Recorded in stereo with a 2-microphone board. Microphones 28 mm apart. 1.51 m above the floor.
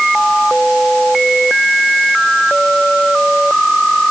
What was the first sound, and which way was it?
Only background noise.